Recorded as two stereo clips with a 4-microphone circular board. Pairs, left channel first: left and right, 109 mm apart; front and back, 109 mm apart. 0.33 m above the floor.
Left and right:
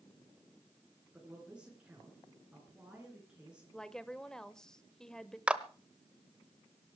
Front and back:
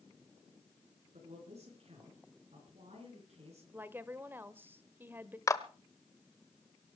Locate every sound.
1.1 s a man speaking: 170° right, 5 m
3.7 s a woman speaking: 160° left, 0.8 m
5.5 s a clap: 20° right, 1.0 m